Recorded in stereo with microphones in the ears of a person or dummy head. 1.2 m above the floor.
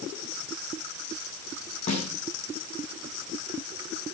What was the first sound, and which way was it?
A snare drum, 40° left (ahead or behind).